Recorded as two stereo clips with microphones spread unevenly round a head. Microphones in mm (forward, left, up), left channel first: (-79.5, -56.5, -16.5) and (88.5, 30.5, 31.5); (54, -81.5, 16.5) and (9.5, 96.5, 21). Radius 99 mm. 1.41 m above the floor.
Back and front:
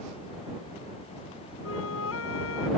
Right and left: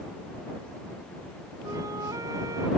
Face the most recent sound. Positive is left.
turn(degrees=180)